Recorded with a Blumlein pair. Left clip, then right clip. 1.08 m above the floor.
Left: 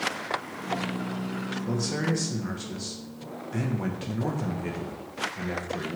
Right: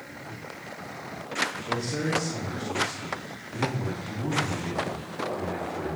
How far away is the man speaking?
About 1.5 m.